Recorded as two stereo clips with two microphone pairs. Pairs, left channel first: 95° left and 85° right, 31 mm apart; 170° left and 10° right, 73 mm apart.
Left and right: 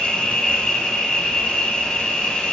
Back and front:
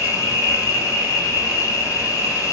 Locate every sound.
0.0 s an insect: 140° left, 0.9 m